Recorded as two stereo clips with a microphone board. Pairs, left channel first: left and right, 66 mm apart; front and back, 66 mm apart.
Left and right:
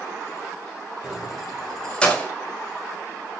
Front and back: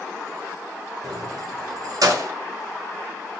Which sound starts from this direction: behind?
Keys jangling, at 1.0 s.